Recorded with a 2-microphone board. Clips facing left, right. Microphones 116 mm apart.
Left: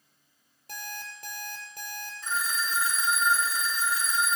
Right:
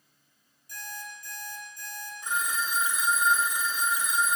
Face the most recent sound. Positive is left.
turn(degrees=-15)  # may be behind; listen again after turning